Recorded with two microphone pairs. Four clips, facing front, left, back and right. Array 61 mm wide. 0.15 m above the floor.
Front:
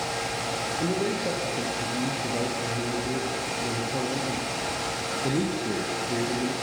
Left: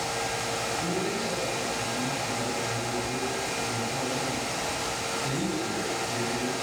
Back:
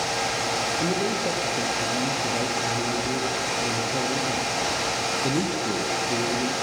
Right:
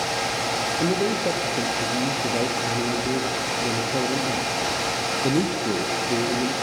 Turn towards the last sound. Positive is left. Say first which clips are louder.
# right 7 dB, back 2 dB
turn(degrees=-95)